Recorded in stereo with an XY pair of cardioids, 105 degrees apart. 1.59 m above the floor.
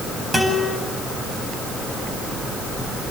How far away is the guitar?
About 8 m.